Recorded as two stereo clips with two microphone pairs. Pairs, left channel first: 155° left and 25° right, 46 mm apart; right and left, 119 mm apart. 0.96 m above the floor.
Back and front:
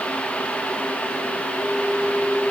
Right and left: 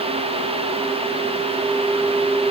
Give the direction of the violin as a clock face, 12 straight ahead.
I don't hear a violin.